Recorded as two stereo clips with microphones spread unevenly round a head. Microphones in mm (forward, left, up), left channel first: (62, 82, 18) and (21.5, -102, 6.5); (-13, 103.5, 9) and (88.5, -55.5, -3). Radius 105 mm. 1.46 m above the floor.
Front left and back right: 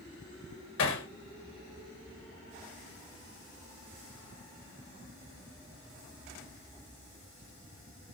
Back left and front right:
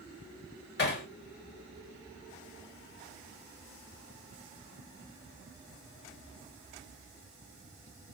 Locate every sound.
0.8 s hammering: 100° left, 1.7 m